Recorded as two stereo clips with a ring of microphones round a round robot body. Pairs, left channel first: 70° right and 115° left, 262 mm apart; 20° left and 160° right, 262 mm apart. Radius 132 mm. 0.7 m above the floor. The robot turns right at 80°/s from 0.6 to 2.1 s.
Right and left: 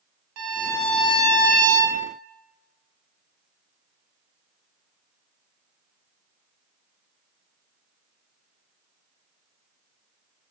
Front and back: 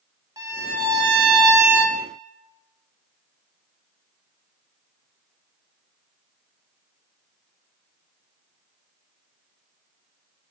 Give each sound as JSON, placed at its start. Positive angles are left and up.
{"t": 0.4, "sound": "a violin", "azimuth_deg": 125, "distance_m": 0.6}